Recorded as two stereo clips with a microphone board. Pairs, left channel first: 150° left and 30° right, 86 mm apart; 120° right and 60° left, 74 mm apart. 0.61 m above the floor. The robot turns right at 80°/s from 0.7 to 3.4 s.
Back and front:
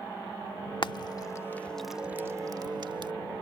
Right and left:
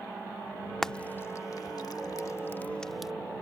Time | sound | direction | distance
0.8 | frying | 155° left | ?